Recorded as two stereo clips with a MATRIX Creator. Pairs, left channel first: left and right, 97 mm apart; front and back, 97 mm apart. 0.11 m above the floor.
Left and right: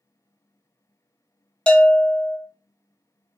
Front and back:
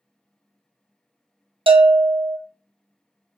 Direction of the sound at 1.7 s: 170° left.